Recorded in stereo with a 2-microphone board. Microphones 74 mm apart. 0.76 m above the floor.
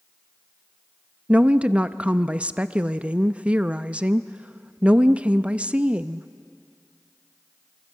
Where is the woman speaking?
15° right (ahead or behind), 0.5 m.